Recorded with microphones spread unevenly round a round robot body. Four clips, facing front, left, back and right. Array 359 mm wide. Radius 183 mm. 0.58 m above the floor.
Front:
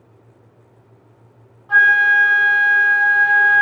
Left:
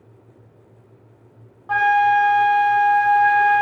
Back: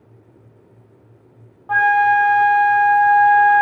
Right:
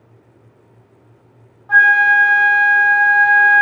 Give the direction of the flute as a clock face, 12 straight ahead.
6 o'clock.